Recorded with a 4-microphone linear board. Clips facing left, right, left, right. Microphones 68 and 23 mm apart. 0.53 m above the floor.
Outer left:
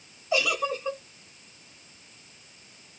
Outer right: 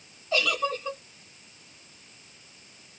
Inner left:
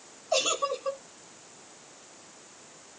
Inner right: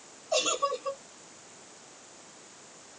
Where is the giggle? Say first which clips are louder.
Even, inner left 1 dB; 15° left (ahead or behind), 0.9 m.